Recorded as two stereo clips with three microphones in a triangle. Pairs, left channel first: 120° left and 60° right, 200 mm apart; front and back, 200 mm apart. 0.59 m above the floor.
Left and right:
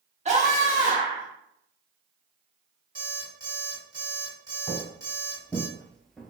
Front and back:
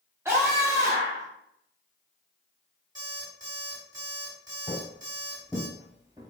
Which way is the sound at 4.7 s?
45° left.